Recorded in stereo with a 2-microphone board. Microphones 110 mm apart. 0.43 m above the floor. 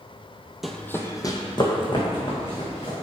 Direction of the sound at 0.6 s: Centre (ahead or behind).